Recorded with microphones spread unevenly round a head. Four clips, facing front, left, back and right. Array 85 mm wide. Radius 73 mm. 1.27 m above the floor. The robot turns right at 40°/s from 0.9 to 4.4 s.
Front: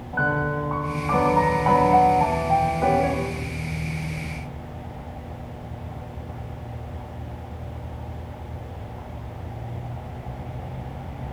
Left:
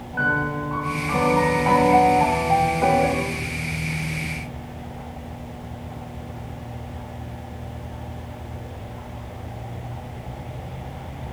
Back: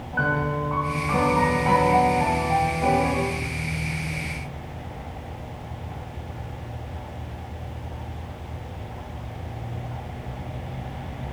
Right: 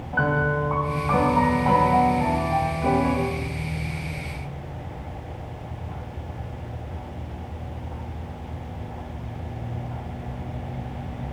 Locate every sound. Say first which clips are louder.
0.1 s a piano: even, front 1 dB; 45° right, 2 m; by 3.1 s 45° left, 2 m